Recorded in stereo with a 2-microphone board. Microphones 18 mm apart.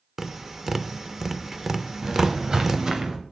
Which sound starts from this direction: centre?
Tapping, at 0.2 s.